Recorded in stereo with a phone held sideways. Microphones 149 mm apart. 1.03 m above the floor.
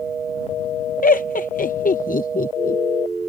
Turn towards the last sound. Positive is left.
turn(degrees=65)  # may be behind; listen again after turning